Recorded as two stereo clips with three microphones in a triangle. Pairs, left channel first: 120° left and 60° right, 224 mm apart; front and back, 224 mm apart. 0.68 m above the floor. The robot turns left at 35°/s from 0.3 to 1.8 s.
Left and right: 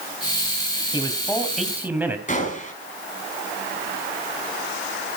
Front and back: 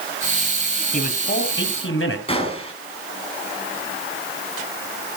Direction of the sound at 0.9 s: 55° left.